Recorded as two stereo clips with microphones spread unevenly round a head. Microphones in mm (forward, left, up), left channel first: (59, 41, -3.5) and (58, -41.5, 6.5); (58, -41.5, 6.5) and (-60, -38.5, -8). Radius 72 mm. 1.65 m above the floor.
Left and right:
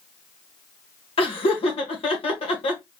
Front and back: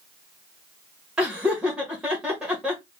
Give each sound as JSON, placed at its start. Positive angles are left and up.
{"t": 1.2, "sound": "laughter", "azimuth_deg": 95, "distance_m": 1.4}